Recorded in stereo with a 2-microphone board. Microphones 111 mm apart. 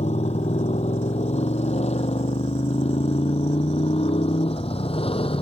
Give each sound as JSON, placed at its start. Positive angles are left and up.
{"t": 0.0, "sound": "a motorcycle", "side_deg": 85}